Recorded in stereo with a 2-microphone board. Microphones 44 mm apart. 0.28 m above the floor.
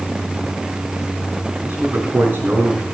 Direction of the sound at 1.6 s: 55° right (ahead or behind).